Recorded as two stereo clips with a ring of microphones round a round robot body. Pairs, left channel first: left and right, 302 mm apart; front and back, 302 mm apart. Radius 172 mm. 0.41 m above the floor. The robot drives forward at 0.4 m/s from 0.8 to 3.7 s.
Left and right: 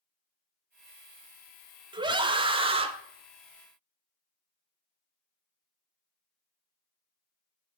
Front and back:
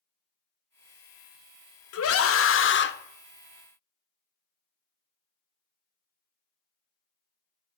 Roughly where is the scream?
Ahead.